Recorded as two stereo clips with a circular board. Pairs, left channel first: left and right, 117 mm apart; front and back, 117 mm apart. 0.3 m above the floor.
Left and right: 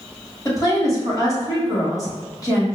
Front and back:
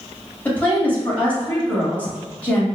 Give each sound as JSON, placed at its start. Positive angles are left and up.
{"t": 0.5, "sound": "a woman speaking", "azimuth_deg": 65, "distance_m": 1.7}